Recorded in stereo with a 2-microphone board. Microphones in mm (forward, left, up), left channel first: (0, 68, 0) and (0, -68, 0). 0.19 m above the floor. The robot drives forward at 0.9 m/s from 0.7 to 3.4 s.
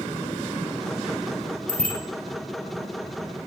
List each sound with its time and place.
1.7 s a bicycle bell: 75° left (ahead or behind), 5 m; by 2.0 s 80° left, 5 m